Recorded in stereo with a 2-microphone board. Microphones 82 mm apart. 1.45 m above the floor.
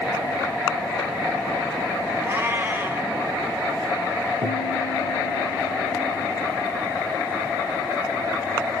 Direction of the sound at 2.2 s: 25° right (ahead or behind).